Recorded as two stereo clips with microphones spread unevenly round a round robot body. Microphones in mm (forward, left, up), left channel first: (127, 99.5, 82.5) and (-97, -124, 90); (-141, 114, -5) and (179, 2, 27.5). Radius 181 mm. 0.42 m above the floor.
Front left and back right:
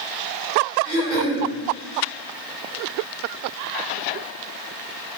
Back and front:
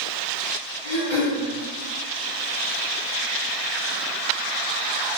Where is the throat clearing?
65° right, 1.9 m.